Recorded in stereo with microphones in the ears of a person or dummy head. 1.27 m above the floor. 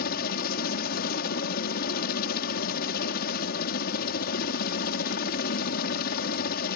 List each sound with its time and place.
0.0 s a helicopter: 55° left (ahead or behind)